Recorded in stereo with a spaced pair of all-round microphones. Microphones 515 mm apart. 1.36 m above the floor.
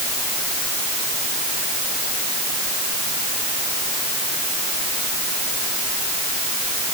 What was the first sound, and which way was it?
Only background noise.